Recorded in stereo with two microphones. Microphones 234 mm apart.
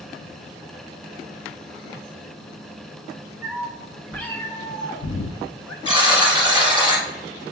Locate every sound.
3.4 s a cat meowing: 10° right (ahead or behind), 1.2 m; by 5.8 s 80° left, 0.7 m
5.8 s a buzzer: 20° right (ahead or behind), 1.6 m